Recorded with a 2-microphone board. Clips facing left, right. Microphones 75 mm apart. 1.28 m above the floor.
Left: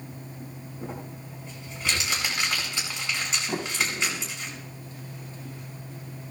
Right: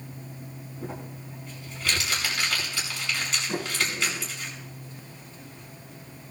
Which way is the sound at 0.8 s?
20° left (ahead or behind).